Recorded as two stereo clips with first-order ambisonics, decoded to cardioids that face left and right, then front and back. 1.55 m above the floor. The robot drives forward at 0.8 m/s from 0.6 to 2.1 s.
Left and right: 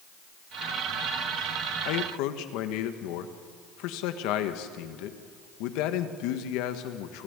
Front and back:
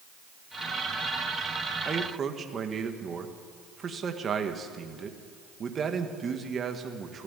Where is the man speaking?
105° left, 1.7 m; by 7.3 s 110° left, 1.7 m.